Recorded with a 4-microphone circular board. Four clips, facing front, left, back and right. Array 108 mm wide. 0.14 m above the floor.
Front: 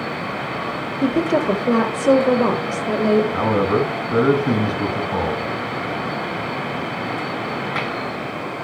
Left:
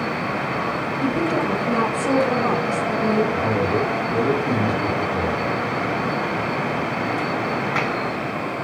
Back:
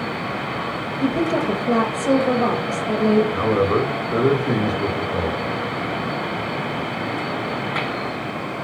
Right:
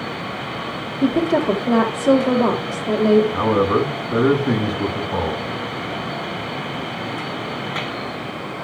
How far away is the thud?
No thud in this recording.